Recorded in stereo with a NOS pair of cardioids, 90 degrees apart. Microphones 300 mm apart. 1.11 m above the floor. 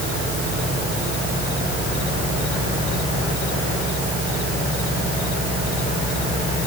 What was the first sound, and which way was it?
Only background noise.